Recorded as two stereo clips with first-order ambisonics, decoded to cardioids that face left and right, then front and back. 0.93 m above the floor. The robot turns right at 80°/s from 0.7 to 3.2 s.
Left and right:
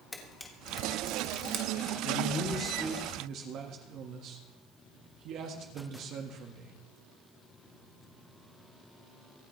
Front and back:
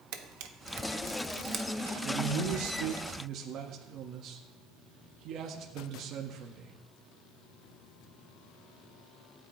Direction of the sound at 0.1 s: 170° left.